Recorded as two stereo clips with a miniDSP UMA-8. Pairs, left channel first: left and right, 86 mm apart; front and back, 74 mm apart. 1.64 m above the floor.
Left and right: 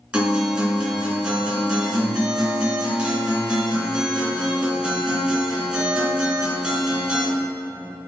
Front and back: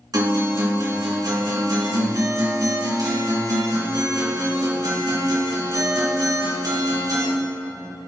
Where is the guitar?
165° right, 3 m.